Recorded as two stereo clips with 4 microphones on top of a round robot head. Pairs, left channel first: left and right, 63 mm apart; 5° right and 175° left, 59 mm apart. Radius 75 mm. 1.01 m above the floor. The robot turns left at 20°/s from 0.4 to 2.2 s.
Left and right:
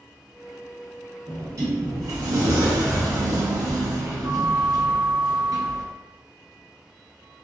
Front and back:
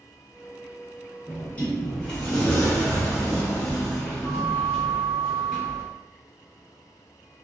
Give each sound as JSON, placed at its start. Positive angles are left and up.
{"t": 1.3, "sound": "a sliding door", "azimuth_deg": -60, "distance_m": 1.0}